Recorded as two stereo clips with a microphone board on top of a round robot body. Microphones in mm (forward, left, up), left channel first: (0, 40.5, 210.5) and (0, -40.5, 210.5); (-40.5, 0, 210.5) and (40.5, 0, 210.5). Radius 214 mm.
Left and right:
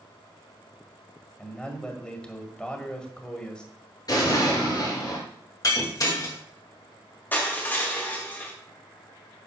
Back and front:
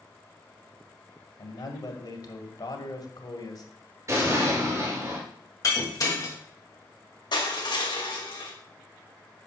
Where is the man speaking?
165° left, 2.5 m.